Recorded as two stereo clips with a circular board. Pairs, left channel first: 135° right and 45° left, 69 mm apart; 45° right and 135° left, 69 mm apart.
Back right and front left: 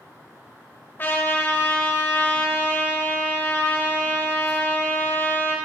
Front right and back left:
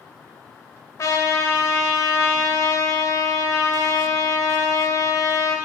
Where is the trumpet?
80° right, 1.0 m.